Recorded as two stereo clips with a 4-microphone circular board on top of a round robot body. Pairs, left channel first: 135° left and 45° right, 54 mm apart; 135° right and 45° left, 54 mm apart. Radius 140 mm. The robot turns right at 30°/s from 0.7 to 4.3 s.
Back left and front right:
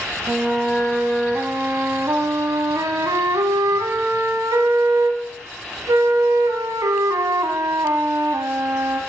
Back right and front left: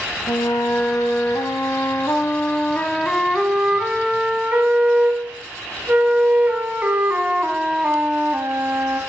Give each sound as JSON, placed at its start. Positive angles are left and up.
{"t": 0.3, "sound": "a flute", "azimuth_deg": -130, "distance_m": 1.6}